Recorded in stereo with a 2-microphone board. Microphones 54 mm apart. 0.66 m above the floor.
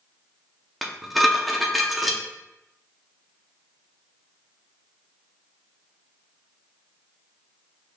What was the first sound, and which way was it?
Dishes clattering, centre (ahead or behind).